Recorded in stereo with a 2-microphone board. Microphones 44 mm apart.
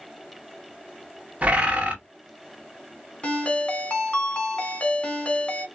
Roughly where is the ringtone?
Left.